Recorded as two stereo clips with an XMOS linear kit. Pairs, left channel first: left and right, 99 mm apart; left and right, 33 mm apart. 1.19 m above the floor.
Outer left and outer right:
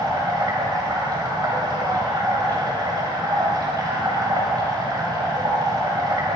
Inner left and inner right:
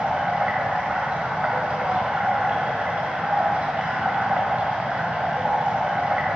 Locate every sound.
0.0 s running water: 40° right (ahead or behind), 2.5 m